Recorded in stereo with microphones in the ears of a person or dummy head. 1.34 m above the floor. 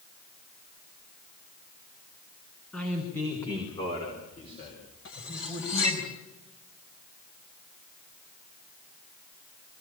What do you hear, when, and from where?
2.7 s a man speaking: 5° left (ahead or behind), 3 m; by 6.0 s 50° left (ahead or behind), 6 m
5.0 s cutlery clinking: 70° left (ahead or behind), 4 m